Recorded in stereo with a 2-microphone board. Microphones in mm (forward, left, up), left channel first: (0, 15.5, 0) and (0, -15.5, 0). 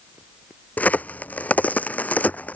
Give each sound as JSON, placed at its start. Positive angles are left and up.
{"t": 0.8, "sound": "a crack", "side_deg": 55}